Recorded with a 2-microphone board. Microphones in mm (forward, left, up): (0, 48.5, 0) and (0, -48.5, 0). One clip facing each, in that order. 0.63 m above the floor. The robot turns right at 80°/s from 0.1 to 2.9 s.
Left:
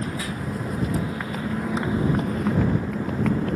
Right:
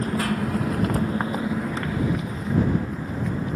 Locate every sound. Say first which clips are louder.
0.0 s a motorcycle: right 5 dB; 50° right (ahead or behind); by 3.6 s 70° left (ahead or behind)